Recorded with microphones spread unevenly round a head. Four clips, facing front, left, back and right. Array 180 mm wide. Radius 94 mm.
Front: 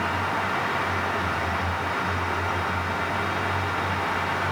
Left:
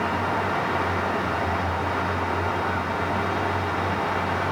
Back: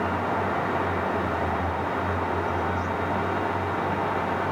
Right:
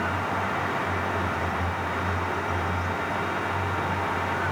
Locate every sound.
Only background noise.